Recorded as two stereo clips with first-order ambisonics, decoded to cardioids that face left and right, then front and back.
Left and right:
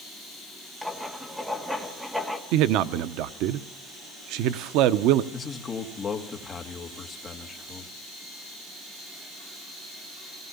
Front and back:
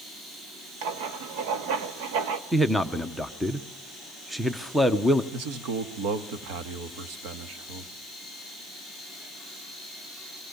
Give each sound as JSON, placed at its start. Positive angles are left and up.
{"t": 0.8, "sound": "writing", "azimuth_deg": 180, "distance_m": 1.7}
{"t": 2.5, "sound": "a man speaking", "azimuth_deg": -95, "distance_m": 0.8}
{"t": 5.3, "sound": "a man speaking", "azimuth_deg": 160, "distance_m": 2.0}